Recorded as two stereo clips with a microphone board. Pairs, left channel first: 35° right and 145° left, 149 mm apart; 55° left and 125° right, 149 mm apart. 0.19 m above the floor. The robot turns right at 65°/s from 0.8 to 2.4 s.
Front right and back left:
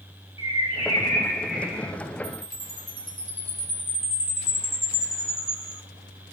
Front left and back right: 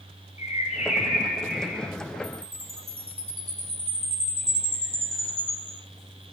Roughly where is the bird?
Ahead.